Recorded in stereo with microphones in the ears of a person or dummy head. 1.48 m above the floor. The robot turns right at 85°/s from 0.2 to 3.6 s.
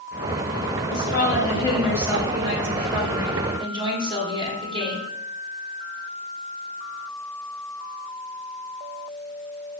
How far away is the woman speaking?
About 1.3 m.